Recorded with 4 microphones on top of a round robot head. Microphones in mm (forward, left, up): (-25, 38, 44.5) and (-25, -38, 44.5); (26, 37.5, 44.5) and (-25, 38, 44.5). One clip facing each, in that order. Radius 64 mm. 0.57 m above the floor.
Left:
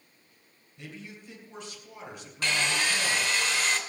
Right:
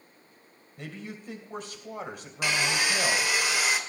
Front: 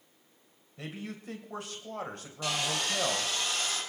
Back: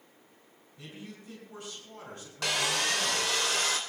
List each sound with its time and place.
0.8 s a man speaking: 40° right, 3 m
2.4 s sawing: 170° right, 2.5 m